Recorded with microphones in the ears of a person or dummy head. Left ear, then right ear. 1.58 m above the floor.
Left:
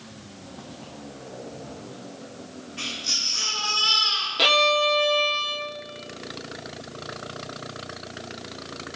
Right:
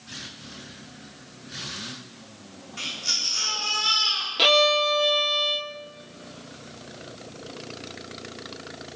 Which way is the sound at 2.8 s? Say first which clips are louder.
Left 1 dB; 50° right (ahead or behind).